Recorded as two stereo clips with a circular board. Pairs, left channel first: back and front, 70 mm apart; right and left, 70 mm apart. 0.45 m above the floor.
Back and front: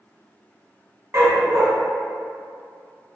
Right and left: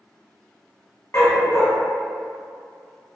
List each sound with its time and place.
1.1 s a dog barking: 45° right, 0.5 m